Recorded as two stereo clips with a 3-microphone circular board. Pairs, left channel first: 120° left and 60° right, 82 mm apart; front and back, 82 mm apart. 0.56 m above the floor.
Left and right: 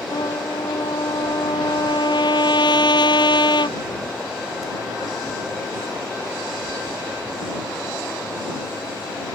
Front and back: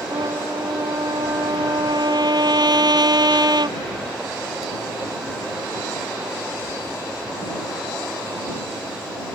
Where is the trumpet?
145° left.